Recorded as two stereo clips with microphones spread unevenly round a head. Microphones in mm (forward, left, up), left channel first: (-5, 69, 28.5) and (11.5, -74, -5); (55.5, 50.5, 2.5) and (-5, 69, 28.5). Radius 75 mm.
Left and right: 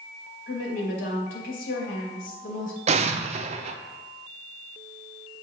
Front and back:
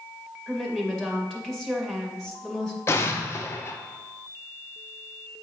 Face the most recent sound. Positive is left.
turn(degrees=-50)